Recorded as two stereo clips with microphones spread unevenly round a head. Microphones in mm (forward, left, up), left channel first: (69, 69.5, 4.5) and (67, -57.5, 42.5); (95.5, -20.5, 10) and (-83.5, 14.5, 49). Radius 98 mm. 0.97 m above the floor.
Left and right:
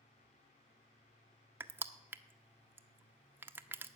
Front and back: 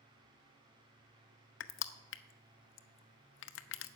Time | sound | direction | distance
1.6 | crushing | 35° right | 0.7 m